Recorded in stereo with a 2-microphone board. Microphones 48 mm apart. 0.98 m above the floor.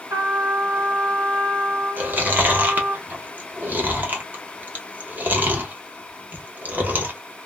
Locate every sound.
0.1 s a trumpet: 60° right (ahead or behind), 2 m
2.0 s chewing: 35° right (ahead or behind), 0.8 m